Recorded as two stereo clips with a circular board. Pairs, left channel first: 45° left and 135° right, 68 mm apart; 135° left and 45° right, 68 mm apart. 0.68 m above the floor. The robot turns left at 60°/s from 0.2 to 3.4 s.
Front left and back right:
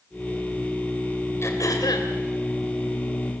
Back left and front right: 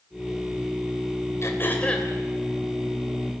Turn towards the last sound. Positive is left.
turn(degrees=-25)